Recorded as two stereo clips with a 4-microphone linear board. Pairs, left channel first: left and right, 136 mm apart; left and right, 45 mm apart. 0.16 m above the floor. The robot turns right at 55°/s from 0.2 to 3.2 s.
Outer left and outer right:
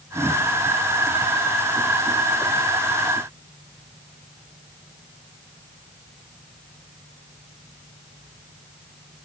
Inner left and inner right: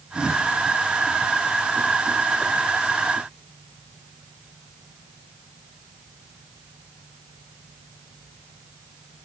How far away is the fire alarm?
No fire alarm in this recording.